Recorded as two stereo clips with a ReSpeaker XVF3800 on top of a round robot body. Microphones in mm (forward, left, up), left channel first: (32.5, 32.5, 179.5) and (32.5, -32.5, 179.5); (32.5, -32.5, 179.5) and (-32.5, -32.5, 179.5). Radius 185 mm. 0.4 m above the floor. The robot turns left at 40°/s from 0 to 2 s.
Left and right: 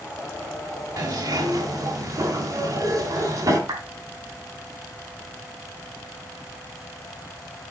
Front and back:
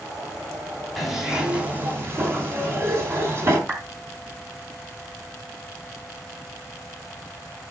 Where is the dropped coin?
No dropped coin in this recording.